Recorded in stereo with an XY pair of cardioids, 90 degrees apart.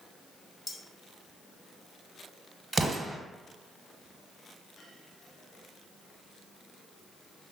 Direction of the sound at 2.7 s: 20° right.